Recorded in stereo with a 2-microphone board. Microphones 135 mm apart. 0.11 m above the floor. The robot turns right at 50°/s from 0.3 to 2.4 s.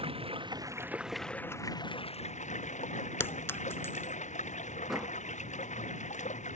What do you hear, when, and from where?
0.0 s running water: 45° right; by 6.6 s 60° left
3.2 s a clink: 20° left (ahead or behind)
4.9 s a door slam: centre (ahead or behind)